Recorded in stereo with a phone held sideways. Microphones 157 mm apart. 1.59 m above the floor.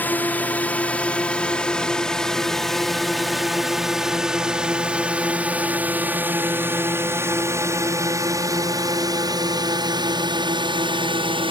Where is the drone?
10° left (ahead or behind); by 11.5 s 35° right (ahead or behind).